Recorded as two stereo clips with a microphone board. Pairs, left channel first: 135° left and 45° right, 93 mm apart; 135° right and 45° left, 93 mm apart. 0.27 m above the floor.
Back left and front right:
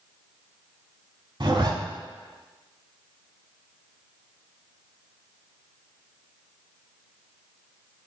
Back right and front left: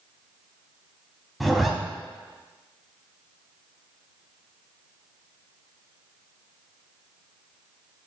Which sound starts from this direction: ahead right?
A zipper, at 1.4 s.